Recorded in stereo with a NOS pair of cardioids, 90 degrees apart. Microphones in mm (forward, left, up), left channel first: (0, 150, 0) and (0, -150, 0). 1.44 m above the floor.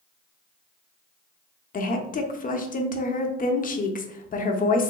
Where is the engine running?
No engine running in this recording.